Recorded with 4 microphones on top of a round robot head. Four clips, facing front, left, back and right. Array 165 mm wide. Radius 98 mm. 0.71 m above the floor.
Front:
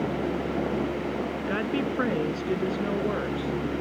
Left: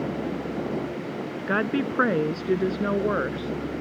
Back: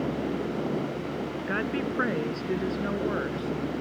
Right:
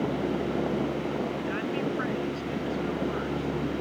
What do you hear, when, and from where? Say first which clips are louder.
1.5 s a woman speaking: left 4 dB, front 1 dB; 80° left